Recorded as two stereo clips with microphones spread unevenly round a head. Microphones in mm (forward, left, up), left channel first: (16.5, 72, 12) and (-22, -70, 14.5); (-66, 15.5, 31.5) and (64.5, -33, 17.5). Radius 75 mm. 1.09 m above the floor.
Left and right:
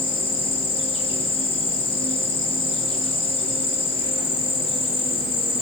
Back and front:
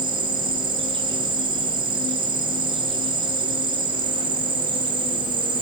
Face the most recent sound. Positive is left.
turn(degrees=35)